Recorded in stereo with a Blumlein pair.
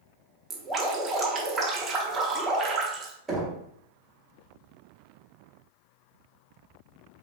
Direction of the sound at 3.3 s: 10° right.